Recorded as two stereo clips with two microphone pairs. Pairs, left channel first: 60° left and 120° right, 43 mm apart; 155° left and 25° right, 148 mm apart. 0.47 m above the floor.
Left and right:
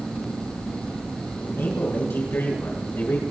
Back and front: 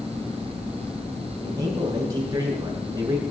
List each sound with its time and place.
1.4 s a man speaking: 35° left, 7 m